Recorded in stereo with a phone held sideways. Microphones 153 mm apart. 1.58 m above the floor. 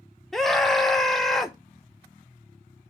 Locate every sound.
0.3 s a scream: centre (ahead or behind), 0.9 m